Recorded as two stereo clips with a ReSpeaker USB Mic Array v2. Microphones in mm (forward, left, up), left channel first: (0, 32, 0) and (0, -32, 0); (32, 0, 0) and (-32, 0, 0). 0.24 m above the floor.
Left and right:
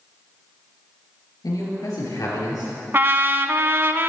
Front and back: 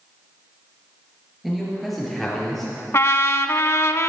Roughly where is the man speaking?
Left.